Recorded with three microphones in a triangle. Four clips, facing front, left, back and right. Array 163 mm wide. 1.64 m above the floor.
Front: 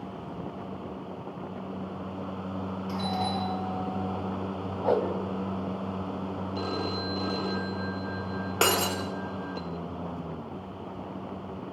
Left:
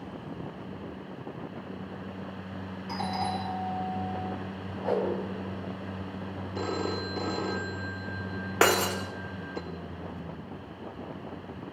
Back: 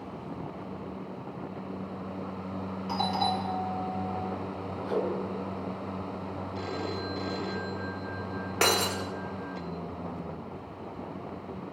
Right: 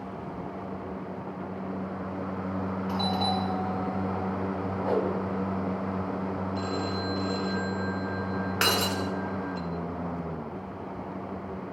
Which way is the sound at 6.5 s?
75° left.